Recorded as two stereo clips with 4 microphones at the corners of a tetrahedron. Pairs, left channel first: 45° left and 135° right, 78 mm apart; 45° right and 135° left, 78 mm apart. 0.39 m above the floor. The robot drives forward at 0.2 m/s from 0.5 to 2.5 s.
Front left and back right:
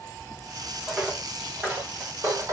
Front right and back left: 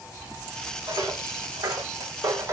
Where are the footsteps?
150° left, 1.6 m; by 2.5 s 175° right, 0.9 m.